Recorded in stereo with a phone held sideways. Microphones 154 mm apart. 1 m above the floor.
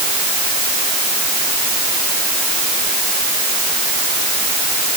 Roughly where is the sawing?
No sawing in this recording.